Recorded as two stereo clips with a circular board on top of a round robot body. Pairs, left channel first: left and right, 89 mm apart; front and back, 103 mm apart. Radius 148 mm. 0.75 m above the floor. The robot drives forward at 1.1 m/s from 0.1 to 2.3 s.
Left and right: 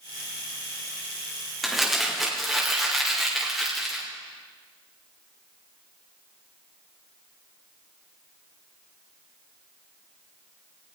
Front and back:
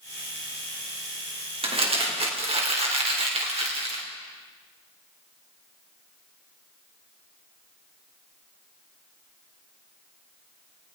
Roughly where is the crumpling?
Behind.